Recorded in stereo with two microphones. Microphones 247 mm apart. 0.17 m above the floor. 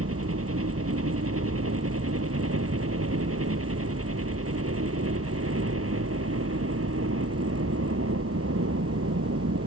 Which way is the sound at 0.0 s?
65° right (ahead or behind).